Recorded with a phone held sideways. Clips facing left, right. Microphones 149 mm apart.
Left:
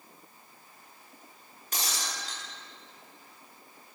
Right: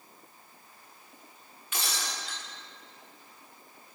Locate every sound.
1.7 s breaking glass: 40° left (ahead or behind), 9.5 m